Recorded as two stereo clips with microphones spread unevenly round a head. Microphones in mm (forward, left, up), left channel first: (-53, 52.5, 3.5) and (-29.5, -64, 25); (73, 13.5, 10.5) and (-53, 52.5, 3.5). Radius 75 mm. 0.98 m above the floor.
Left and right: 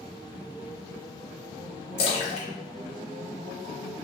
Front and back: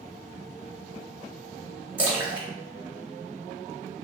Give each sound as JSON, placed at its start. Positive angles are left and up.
{"t": 2.0, "sound": "a splash", "azimuth_deg": 90, "distance_m": 0.8}